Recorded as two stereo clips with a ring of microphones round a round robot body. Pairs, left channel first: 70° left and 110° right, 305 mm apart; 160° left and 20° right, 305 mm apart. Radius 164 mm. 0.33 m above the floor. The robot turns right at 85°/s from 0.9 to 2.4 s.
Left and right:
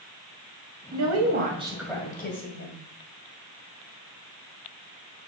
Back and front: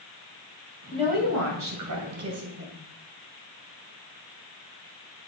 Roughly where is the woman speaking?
Right.